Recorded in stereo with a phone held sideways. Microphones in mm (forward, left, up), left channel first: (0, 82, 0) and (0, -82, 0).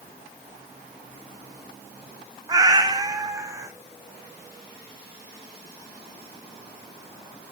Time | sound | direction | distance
2.5 | a cat meowing | 20° right (ahead or behind) | 0.6 m